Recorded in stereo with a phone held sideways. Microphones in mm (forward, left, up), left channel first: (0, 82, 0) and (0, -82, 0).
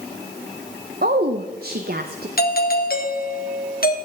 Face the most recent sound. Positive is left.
turn(degrees=65)  # may be behind; listen again after turning